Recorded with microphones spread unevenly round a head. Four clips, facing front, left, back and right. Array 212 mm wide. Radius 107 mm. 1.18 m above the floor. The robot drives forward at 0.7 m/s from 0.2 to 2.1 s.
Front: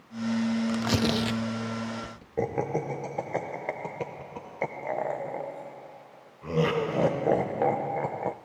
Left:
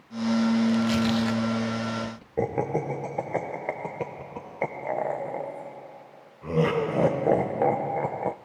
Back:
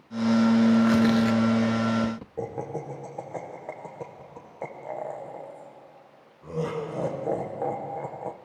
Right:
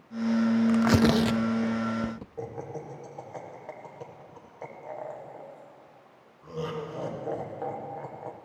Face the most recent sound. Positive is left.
turn(degrees=70)